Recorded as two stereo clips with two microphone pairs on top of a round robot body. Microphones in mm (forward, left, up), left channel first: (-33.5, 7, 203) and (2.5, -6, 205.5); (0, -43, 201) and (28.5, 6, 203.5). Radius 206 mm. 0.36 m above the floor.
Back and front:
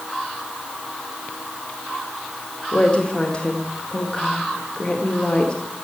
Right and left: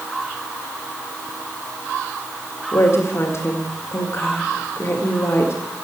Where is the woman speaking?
145° right, 1.9 m.